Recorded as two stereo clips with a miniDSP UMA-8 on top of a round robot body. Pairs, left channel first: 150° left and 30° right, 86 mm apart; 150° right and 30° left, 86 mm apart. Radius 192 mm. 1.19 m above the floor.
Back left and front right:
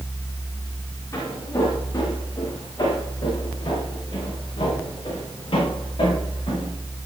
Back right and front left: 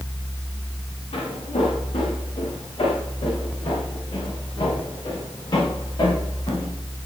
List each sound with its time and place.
1.1 s footsteps: 155° right, 6.5 m; by 6.7 s 175° left, 13.5 m